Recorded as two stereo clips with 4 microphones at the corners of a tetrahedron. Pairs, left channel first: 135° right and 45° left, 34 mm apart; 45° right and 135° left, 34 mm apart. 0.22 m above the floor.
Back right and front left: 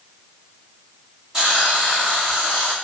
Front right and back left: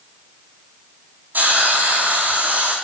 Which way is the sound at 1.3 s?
115° left.